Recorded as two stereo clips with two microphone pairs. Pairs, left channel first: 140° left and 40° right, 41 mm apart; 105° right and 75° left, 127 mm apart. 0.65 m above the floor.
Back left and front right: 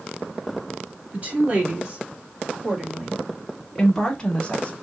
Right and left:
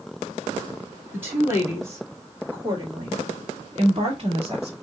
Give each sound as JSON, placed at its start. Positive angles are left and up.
{"t": 1.1, "sound": "a woman speaking", "azimuth_deg": 0, "distance_m": 2.5}